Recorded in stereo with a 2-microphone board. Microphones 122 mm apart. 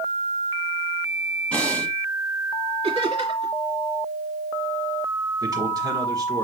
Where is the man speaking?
30° right (ahead or behind), 1.4 m.